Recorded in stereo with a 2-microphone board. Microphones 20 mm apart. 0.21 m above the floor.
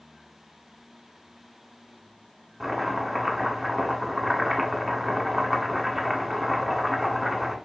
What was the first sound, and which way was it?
Chopping, 5° right (ahead or behind).